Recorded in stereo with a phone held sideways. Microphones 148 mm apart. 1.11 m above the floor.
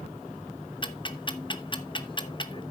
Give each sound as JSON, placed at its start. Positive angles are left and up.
{"t": 0.8, "sound": "ticking", "side_deg": 35, "distance_m": 0.9}